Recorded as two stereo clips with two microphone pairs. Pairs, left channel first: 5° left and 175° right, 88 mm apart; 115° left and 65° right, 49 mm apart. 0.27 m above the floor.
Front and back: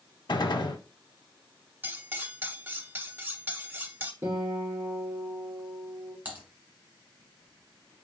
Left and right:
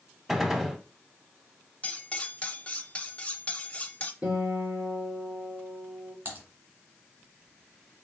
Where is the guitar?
125° right, 3 m.